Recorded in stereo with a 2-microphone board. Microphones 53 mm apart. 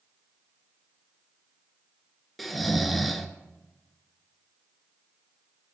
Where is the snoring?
Centre (ahead or behind), 0.5 m.